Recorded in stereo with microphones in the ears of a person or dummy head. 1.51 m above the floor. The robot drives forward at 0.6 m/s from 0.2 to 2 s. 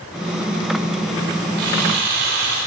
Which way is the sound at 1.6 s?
65° right (ahead or behind).